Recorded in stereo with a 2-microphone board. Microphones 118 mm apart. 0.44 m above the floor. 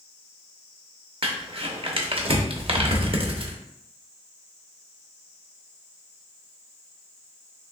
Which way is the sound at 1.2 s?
50° right (ahead or behind).